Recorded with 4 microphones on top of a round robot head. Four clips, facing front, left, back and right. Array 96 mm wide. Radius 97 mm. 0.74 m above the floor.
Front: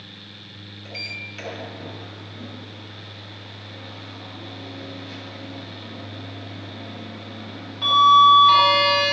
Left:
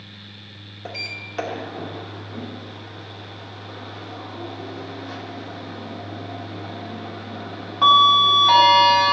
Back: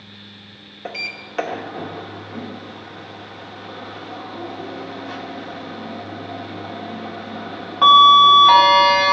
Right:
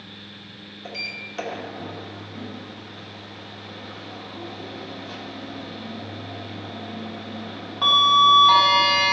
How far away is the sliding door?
About 1.0 m.